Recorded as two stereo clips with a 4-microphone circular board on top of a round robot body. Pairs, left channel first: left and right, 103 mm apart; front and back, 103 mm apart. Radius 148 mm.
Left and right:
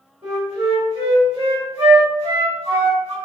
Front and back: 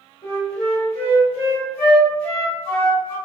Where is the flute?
40° right, 0.9 m.